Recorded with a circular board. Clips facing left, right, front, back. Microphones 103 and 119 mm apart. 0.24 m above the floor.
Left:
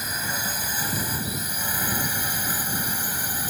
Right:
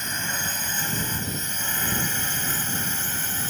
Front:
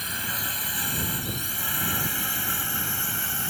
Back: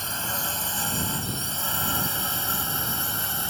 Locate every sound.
0.0 s a drone: 165° left; by 3.5 s 150° left